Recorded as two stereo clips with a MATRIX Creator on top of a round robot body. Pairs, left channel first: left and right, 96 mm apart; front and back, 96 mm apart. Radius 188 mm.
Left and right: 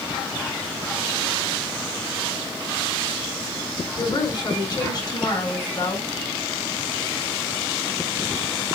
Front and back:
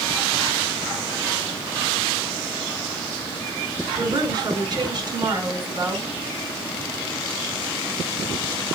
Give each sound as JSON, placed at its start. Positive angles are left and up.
{"t": 4.0, "sound": "a woman speaking", "azimuth_deg": 135, "distance_m": 5.0}